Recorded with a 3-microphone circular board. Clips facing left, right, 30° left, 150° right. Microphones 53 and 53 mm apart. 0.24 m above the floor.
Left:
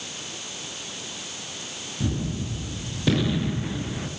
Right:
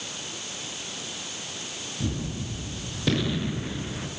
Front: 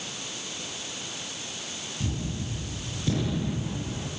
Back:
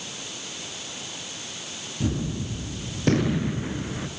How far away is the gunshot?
About 2 m.